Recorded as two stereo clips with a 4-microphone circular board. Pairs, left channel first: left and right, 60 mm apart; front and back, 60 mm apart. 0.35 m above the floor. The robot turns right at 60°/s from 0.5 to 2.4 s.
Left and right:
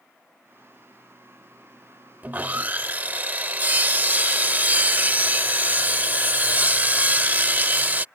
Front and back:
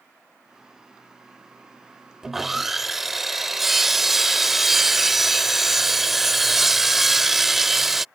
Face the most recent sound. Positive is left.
turn(degrees=-95)